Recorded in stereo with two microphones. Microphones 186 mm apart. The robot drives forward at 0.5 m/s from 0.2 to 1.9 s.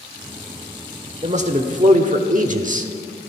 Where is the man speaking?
35° right (ahead or behind), 1.4 m; by 2.9 s 45° right (ahead or behind), 1.2 m.